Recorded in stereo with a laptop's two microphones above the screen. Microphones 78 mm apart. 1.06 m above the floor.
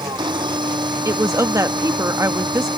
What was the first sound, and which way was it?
A machine running, 85° right.